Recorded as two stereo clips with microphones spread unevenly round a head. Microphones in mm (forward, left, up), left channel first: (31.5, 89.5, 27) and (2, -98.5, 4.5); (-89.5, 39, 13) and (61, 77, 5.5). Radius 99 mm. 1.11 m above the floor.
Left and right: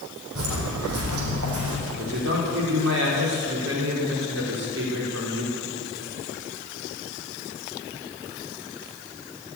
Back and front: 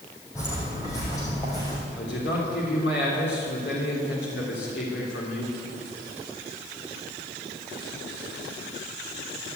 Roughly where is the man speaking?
Behind right.